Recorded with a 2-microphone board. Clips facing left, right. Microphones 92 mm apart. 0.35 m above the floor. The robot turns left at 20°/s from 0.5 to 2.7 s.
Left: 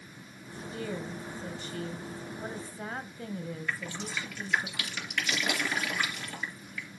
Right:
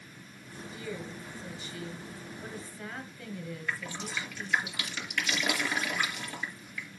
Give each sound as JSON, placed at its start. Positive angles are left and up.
{"t": 0.7, "sound": "a woman speaking", "azimuth_deg": 80, "distance_m": 1.9}
{"t": 3.7, "sound": "dripping", "side_deg": 0, "distance_m": 3.5}